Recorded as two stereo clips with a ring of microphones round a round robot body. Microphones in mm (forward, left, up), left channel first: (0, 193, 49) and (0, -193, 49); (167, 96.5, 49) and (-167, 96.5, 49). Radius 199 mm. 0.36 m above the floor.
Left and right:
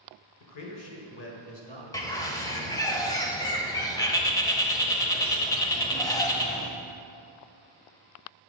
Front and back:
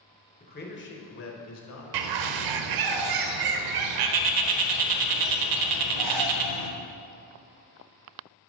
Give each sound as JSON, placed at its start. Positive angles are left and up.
{"t": 0.4, "sound": "a man speaking", "azimuth_deg": 60, "distance_m": 1.4}
{"t": 1.9, "sound": "a bird", "azimuth_deg": 170, "distance_m": 0.6}